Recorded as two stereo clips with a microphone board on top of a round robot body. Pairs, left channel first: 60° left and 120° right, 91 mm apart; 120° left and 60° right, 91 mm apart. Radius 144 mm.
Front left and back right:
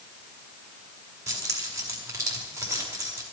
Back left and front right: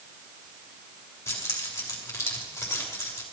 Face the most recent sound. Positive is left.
turn(degrees=180)